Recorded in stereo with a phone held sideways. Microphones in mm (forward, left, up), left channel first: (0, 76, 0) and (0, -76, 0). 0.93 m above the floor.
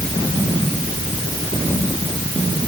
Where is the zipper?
I don't hear a zipper.